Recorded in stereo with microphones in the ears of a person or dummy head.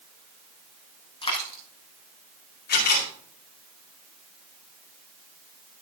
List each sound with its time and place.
1.2 s a dropped coin: 25° left (ahead or behind), 4 m
2.7 s a camera shutter: 50° left (ahead or behind), 4.5 m